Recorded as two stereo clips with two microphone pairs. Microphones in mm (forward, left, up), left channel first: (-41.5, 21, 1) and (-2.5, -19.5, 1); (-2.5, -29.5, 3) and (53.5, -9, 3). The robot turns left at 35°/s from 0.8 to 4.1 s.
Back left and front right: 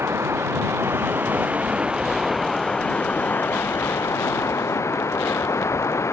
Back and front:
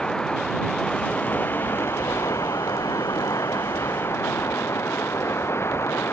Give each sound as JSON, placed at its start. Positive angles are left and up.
{"t": 0.0, "sound": "running water", "azimuth_deg": -85}